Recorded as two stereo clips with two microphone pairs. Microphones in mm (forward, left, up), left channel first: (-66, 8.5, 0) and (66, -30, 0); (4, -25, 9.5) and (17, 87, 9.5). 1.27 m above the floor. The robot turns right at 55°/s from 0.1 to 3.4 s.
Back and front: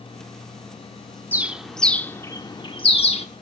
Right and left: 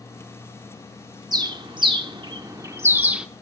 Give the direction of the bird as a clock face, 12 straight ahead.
10 o'clock.